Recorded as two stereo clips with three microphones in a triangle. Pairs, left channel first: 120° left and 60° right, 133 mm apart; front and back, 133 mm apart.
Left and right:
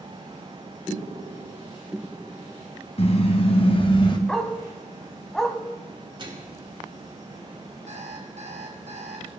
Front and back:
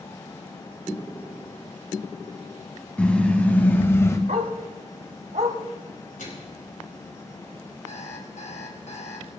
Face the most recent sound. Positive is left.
turn(degrees=-30)